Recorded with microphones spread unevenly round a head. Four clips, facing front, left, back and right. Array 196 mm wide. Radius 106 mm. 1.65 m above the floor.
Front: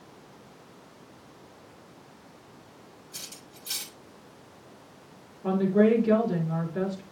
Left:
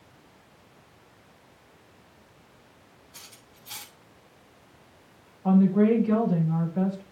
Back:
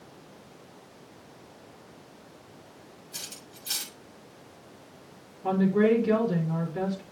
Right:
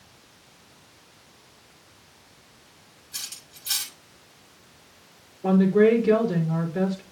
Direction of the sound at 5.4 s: 65° right.